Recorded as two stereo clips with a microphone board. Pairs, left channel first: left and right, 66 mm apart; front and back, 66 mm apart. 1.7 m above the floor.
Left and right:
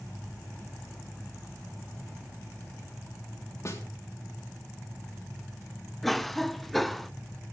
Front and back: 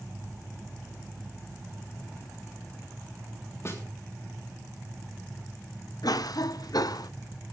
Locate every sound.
3.6 s a snare drum: 45° left, 3.5 m
6.0 s a cough: straight ahead, 0.6 m